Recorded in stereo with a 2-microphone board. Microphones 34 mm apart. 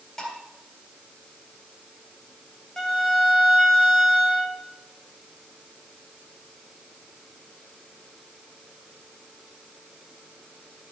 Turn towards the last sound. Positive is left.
turn(degrees=15)  # may be behind; listen again after turning